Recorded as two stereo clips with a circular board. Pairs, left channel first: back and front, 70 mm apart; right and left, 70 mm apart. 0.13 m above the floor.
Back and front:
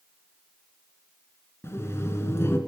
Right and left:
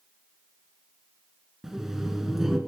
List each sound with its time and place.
1.6 s laughter: 175° left, 1.5 m